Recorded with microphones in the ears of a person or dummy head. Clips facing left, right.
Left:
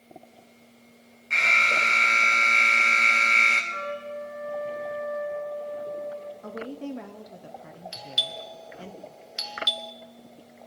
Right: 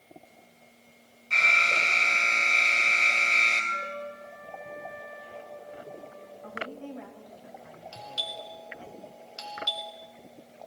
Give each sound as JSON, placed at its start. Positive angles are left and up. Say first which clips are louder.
{"t": 1.3, "sound": "an alarm", "louder": "left 2 dB", "side_deg": 20, "distance_m": 1.6}
{"t": 3.7, "sound": "a trumpet", "louder": "left 7 dB", "side_deg": 80, "distance_m": 1.8}
{"t": 6.4, "sound": "a woman speaking", "louder": "left 2 dB", "side_deg": 60, "distance_m": 1.0}
{"t": 7.9, "sound": "a doorbell", "louder": "even", "side_deg": 25, "distance_m": 1.0}